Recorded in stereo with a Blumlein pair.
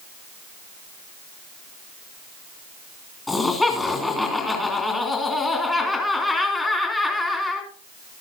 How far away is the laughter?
About 3 m.